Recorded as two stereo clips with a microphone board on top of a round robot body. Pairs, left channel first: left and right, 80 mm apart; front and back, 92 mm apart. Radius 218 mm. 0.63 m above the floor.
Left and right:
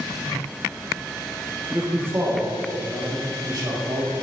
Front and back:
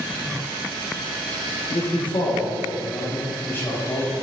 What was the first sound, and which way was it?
A man speaking, 5° right.